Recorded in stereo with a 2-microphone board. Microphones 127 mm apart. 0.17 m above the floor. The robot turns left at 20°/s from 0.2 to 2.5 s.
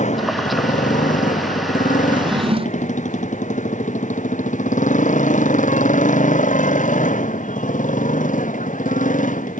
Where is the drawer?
35° right (ahead or behind); by 2.9 s 45° right (ahead or behind).